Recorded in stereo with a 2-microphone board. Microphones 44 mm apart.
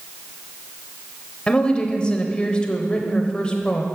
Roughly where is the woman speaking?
Left.